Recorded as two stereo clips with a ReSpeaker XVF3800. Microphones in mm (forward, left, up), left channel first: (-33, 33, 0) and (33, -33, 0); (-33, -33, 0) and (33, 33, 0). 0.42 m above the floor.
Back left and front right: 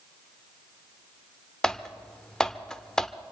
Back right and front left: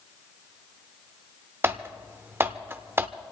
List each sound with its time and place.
1.6 s typing on a keyboard: 60° left, 0.6 m